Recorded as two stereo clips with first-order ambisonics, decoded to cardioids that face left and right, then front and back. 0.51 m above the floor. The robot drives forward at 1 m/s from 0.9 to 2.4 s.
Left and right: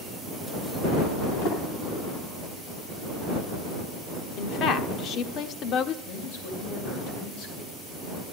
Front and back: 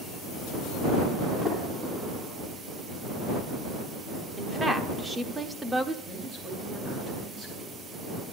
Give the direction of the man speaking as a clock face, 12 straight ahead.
8 o'clock.